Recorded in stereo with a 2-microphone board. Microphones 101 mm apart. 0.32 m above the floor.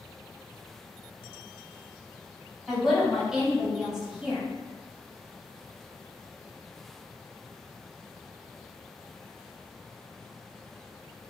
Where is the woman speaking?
5° right (ahead or behind), 1.2 m.